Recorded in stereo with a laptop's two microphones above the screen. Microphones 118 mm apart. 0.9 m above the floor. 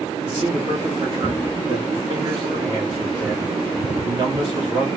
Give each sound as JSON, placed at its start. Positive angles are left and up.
{"t": 0.2, "sound": "a man speaking", "side_deg": -40, "distance_m": 1.6}